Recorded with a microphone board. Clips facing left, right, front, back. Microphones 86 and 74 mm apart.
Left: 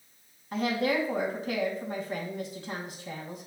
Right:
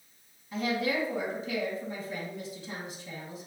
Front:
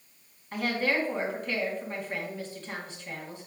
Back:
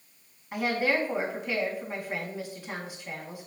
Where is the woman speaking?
105° left, 2.5 m.